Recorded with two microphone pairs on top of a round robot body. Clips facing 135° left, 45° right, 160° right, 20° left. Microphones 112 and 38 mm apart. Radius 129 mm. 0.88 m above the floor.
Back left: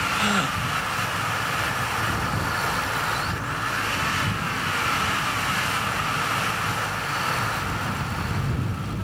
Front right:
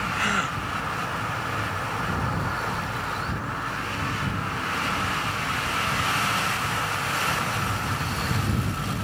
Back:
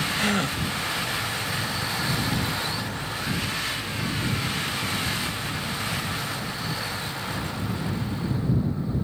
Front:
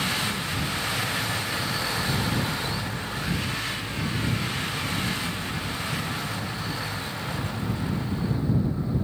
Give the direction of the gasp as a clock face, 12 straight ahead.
5 o'clock.